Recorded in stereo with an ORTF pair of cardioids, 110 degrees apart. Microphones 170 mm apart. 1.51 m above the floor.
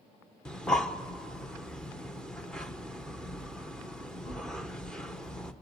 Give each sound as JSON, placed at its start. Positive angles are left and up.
{"t": 0.5, "sound": "breathing", "azimuth_deg": 5, "distance_m": 0.9}